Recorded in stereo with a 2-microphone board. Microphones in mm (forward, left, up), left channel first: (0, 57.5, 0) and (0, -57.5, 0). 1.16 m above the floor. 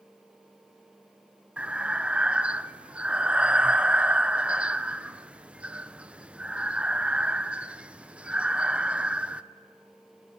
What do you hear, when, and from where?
1.6 s breathing: 10° right (ahead or behind), 0.5 m